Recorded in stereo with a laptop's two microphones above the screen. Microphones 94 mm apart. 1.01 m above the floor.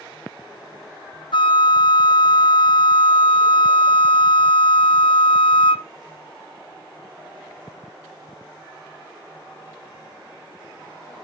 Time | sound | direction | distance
1.3 | a flute | 65° left (ahead or behind) | 0.6 m